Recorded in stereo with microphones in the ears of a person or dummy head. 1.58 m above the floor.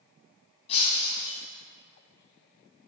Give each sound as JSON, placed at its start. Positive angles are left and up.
{"t": 0.7, "sound": "breaking glass", "side_deg": 30, "distance_m": 3.5}